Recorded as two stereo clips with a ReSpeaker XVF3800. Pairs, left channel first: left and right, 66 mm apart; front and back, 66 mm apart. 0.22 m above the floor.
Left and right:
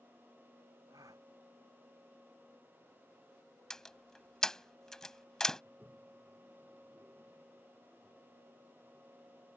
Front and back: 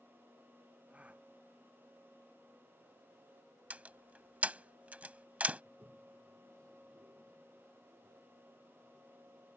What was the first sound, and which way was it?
A gasp, 110° right.